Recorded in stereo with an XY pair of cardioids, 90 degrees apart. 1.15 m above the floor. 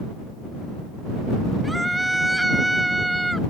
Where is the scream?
10° right.